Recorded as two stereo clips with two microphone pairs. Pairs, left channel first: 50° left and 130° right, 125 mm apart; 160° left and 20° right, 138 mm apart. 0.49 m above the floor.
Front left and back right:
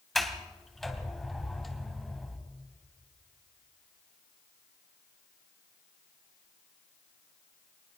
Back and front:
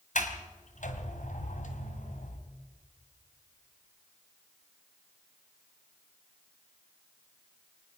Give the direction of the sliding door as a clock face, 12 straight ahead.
7 o'clock.